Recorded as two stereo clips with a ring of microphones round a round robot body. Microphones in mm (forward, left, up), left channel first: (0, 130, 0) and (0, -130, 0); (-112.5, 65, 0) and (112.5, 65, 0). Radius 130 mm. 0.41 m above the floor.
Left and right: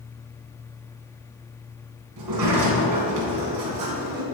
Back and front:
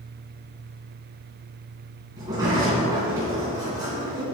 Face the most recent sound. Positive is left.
turn(degrees=-75)